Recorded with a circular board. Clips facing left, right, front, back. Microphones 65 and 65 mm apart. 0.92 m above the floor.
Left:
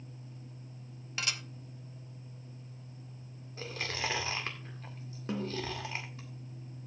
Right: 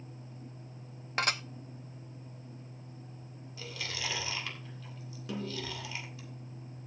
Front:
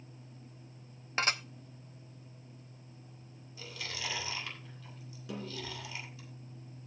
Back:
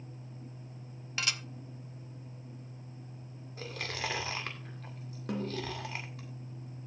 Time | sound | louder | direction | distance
1.2 | dishes clattering | right 7 dB, front 4 dB | 50° right | 0.6 m
3.6 | chewing | left 3 dB, back 4 dB | 140° left | 2.0 m
5.3 | a snare drum | left 3 dB, back 6 dB | 145° left | 3 m